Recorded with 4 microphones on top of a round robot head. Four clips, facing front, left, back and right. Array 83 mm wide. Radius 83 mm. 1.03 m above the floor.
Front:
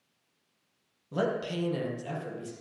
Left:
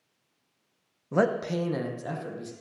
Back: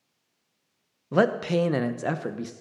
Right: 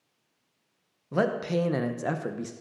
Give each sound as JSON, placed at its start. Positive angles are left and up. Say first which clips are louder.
{"t": 1.1, "sound": "a man speaking", "louder": "left 1 dB, back 8 dB", "azimuth_deg": 150, "distance_m": 0.8}